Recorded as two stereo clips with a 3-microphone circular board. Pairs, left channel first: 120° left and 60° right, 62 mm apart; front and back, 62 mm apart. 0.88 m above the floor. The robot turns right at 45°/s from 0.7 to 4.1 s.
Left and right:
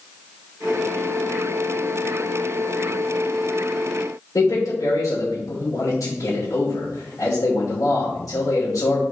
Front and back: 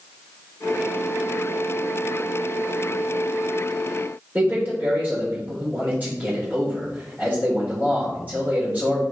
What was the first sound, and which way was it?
A man speaking, 120° left.